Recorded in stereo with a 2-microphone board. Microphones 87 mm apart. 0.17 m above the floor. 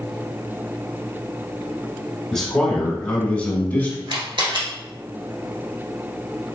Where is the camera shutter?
65° right (ahead or behind), 1.4 m.